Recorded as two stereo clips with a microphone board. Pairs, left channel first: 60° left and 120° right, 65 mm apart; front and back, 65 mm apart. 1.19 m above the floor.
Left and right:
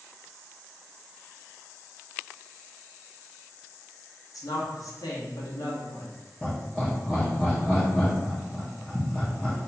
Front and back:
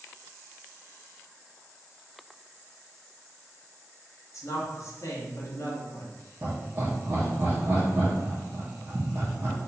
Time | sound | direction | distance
4.3 | a woman speaking | 40° left | 1.1 m
6.4 | laughter | 140° left | 0.7 m